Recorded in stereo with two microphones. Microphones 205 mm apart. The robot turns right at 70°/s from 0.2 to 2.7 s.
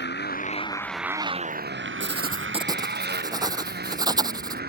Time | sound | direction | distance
0.0 | a motorcycle | 55° left (ahead or behind) | ?
2.0 | writing | 70° right | ?